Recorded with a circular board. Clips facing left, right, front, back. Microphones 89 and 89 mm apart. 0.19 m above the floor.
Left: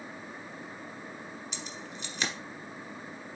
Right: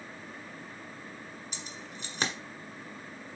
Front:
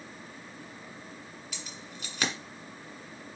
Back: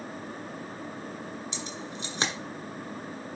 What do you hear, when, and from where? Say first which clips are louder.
1.5 s keys jangling: left 2 dB, back 8 dB; 120° right, 1.6 m